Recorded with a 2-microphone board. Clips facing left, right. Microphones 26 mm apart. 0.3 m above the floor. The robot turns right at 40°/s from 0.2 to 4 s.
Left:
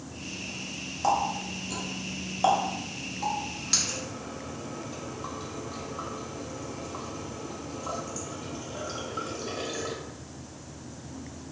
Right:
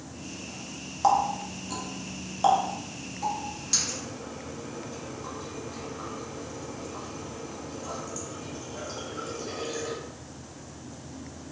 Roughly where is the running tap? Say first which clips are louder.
Right 3 dB; centre.